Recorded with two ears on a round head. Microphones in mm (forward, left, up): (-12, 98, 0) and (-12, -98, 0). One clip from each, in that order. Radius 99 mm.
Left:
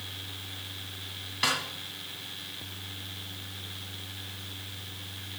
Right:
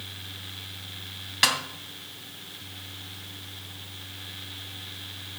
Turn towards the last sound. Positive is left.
turn(degrees=-40)  # may be behind; listen again after turning